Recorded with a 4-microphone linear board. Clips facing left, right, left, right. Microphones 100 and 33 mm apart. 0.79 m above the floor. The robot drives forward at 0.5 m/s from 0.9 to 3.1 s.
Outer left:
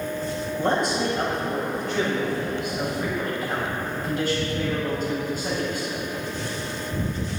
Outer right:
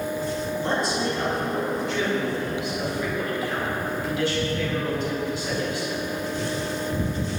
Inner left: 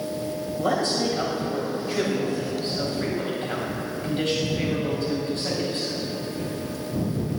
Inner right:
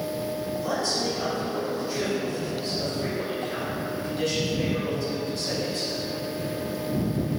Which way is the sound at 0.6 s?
55° left (ahead or behind).